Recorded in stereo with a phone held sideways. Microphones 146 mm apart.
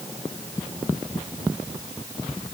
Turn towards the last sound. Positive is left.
No sound to turn to.